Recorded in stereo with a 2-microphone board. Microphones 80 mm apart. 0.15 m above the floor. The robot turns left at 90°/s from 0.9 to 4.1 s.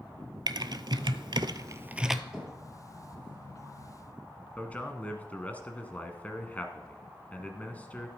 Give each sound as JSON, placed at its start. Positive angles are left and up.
{"t": 0.5, "sound": "typing on a keyboard", "side_deg": -65, "distance_m": 0.5}
{"t": 2.3, "sound": "knocking", "side_deg": -5, "distance_m": 2.5}
{"t": 4.6, "sound": "a man speaking", "side_deg": 20, "distance_m": 1.0}